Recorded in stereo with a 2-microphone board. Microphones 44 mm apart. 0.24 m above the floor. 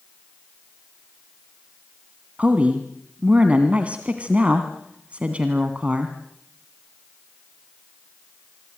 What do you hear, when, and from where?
2.4 s a woman speaking: 30° right (ahead or behind), 1.8 m